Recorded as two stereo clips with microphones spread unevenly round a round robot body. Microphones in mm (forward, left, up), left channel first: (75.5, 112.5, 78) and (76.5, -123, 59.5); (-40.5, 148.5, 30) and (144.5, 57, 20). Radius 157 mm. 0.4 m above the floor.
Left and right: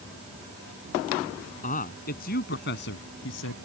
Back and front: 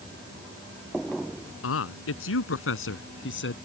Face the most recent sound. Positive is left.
turn(degrees=130)